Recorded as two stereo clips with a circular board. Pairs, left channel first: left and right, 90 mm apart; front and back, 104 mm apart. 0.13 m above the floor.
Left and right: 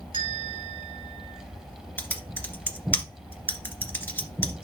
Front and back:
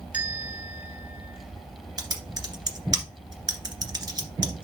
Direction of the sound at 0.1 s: 105° right.